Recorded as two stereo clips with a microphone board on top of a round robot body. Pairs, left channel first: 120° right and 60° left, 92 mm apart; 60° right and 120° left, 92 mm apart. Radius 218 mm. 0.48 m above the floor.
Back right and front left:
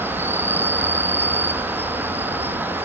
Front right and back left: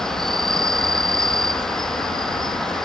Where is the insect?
20° left.